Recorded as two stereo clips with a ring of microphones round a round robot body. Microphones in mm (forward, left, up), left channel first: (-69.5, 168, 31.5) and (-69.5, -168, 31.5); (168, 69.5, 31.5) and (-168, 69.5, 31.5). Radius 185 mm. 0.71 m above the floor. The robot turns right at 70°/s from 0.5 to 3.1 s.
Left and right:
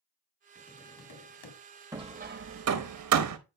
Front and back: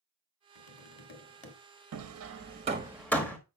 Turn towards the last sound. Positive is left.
turn(degrees=-85)